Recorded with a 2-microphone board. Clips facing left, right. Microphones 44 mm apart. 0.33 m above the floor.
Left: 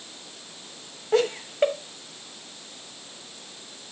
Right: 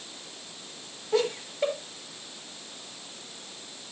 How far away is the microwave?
No microwave in this recording.